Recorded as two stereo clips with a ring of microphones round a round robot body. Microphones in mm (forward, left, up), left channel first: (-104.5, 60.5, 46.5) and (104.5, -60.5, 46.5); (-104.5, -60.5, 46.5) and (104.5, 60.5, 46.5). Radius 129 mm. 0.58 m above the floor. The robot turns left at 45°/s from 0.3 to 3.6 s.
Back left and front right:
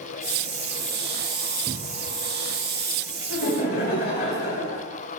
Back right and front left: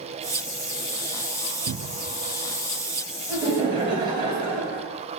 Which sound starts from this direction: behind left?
Laughter, at 3.3 s.